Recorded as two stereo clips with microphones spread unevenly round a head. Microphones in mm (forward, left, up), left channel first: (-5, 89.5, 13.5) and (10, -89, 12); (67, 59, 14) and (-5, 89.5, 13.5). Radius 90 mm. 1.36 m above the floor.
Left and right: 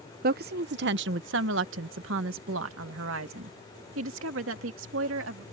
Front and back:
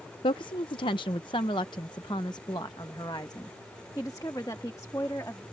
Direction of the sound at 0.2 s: 45° right.